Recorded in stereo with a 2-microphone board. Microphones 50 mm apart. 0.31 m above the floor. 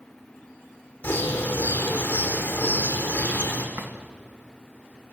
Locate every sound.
1.0 s a bird: 40° left (ahead or behind), 4.5 m
3.8 s a drawer: 50° right (ahead or behind), 1.5 m